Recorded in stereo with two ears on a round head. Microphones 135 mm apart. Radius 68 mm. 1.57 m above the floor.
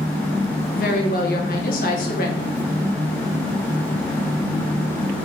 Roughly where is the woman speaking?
Left.